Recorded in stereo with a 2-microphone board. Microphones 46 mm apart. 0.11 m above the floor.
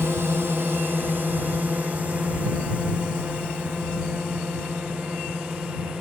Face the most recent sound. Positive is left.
turn(degrees=-15)  # may be behind; listen again after turning